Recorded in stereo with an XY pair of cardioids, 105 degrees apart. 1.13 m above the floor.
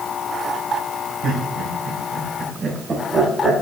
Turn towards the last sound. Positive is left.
turn(degrees=-25)